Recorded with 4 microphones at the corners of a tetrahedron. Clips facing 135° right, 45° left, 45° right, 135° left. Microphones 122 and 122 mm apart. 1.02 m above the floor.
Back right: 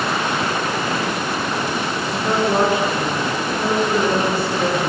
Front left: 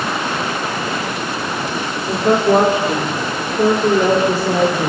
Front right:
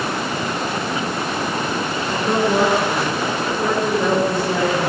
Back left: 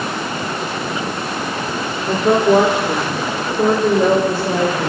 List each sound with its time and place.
2.1 s a woman speaking: 100° left, 3 m; by 4.9 s 75° left, 4.5 m